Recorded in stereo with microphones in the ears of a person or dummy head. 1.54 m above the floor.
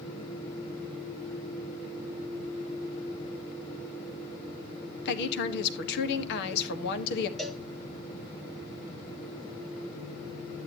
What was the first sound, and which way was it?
A woman speaking, 60° left (ahead or behind).